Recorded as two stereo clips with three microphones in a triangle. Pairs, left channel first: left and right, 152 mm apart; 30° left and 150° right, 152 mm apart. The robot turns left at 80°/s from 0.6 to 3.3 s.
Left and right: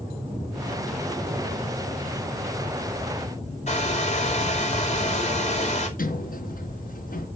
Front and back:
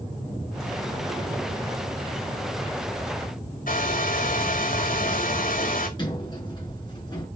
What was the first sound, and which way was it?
A hair dryer, 50° left.